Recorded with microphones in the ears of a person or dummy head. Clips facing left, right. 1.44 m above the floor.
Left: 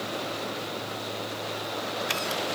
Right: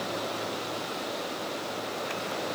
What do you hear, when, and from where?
Only background noise.